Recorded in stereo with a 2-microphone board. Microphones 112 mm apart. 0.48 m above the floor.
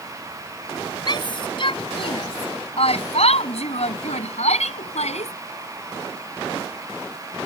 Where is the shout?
45° left (ahead or behind); by 5.3 s 75° left (ahead or behind).